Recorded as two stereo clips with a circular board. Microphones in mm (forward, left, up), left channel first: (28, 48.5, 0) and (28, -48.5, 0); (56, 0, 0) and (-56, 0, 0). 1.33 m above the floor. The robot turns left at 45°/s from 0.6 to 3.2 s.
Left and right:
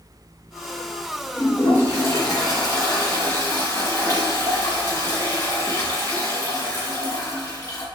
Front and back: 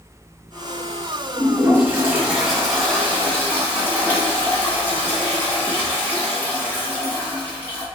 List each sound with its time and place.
1.4 s a toilet flushing: 140° left, 1.5 m; by 7.8 s 55° left, 1.5 m